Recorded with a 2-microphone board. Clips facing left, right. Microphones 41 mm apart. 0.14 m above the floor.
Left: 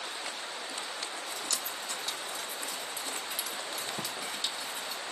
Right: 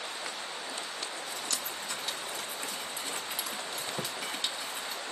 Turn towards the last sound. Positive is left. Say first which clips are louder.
# right 1 dB
turn(degrees=-5)  # may be behind; listen again after turning